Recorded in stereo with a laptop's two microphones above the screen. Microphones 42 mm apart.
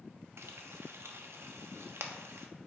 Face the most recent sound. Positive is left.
turn(degrees=-75)  # may be behind; listen again after turning